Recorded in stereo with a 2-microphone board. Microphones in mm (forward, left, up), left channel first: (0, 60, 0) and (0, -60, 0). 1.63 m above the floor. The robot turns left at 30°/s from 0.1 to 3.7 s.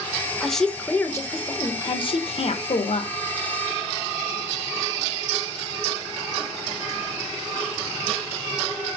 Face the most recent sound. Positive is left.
turn(degrees=80)